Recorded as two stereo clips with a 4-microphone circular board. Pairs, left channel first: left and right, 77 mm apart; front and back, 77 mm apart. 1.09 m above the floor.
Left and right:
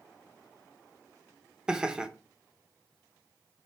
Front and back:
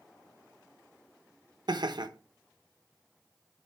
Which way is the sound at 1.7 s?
170° right.